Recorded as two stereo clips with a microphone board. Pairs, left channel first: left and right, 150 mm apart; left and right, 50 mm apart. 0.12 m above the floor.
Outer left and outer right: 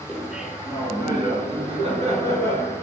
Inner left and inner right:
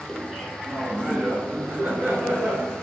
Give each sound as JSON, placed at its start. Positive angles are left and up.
{"t": 0.1, "sound": "laughter", "side_deg": 0, "distance_m": 1.6}